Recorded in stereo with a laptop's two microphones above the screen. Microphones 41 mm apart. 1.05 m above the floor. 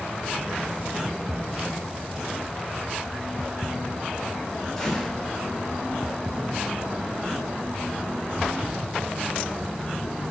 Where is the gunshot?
10° left (ahead or behind), 3 m.